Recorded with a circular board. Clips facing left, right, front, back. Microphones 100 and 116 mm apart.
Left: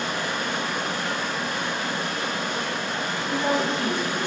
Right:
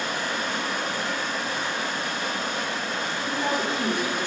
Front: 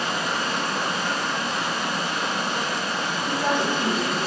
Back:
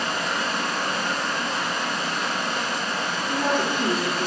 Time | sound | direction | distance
0.0 | running water | 75° left | 1.8 m
3.3 | a woman speaking | 165° right | 1.9 m